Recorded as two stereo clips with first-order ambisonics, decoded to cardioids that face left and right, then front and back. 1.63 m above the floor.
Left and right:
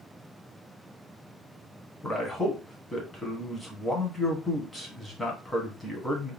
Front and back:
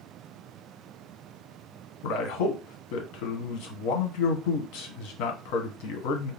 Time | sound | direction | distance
2.0 | a man speaking | 10° left | 1.0 m